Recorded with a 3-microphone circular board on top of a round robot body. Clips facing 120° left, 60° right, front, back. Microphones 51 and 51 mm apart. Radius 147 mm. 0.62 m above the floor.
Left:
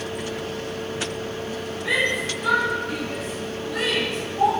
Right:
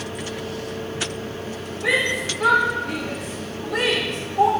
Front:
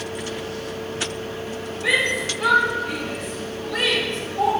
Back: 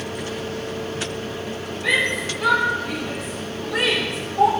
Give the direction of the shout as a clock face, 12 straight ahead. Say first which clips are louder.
Right 2 dB, even; 3 o'clock.